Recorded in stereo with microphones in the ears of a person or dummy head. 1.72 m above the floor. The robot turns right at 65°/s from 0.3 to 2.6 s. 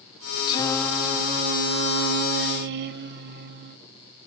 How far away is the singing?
About 0.9 m.